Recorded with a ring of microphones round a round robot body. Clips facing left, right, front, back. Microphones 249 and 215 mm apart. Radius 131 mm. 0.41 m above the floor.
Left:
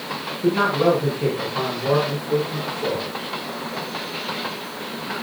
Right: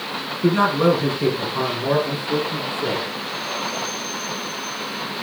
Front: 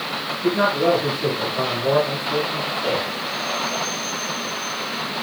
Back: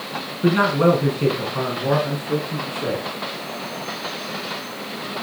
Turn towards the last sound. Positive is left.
turn(degrees=-155)